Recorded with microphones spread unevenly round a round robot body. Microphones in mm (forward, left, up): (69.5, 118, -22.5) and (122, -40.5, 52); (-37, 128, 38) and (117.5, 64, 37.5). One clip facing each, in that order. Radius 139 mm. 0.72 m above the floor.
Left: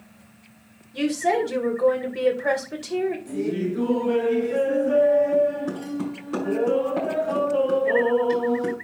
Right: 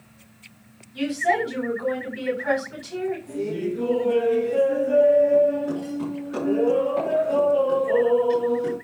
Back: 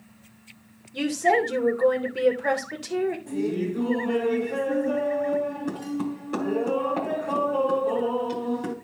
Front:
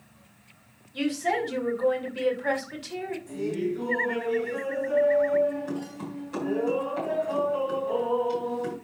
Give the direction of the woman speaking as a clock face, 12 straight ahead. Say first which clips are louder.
Left 2 dB, back 4 dB; 8 o'clock.